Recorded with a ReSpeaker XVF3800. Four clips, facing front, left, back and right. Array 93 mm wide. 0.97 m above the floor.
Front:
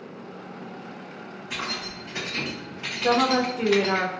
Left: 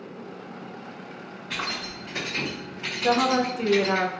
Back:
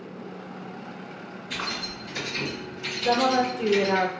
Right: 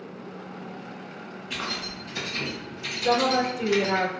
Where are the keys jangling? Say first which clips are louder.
Left 2 dB, even; 65° left, 1.4 m; by 4.0 s 35° right, 0.6 m.